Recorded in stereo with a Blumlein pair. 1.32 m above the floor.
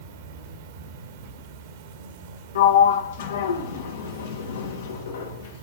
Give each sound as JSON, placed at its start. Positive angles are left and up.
{"t": 0.0, "sound": "an insect", "azimuth_deg": -55, "distance_m": 1.1}
{"t": 2.5, "sound": "a sliding door", "azimuth_deg": 60, "distance_m": 1.5}